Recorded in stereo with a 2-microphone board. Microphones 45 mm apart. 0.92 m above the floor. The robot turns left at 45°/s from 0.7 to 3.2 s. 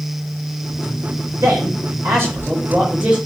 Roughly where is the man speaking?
Right.